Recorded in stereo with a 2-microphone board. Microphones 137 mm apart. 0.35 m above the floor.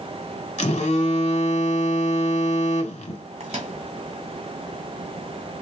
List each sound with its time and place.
0.6 s a phone buzzing: 55° left (ahead or behind), 0.9 m
3.4 s a microwave: 50° right (ahead or behind), 1.6 m